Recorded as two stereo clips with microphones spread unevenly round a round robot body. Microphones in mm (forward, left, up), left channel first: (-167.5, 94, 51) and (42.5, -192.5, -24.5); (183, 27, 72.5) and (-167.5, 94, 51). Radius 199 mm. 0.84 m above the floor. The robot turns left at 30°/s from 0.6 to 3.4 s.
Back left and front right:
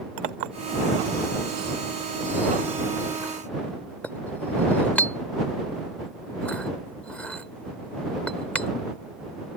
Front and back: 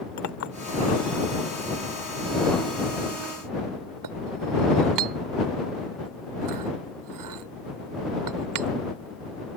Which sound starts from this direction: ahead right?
A clink, at 0.2 s.